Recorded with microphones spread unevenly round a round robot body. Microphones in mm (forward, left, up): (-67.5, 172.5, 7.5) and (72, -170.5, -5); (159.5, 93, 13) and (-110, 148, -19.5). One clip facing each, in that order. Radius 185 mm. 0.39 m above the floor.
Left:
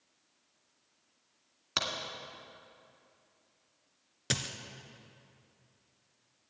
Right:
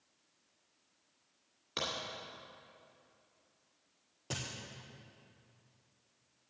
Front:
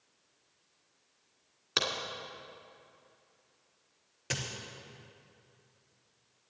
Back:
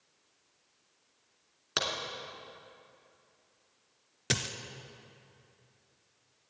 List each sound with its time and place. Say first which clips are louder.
1.8 s a crack: even, front 1 dB; 80° left, 2.0 m
4.3 s a dropped coin: left 5 dB, back 4 dB; 135° left, 1.0 m